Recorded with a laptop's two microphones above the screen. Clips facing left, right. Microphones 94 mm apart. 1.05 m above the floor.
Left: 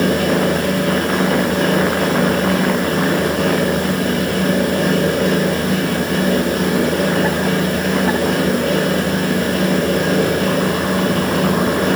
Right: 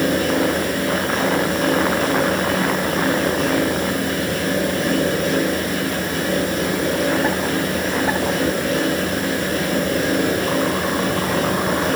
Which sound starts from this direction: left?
A fan, at 0.0 s.